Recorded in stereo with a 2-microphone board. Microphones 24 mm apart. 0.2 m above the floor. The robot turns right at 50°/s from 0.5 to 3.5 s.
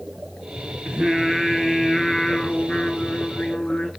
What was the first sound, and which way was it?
Singing, 40° right.